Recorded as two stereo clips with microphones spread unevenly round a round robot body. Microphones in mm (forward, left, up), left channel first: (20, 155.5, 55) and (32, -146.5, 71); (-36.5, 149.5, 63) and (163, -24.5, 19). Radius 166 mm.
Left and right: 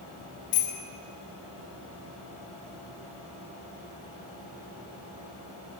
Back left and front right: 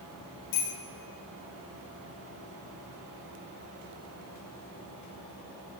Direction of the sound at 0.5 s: 145° left.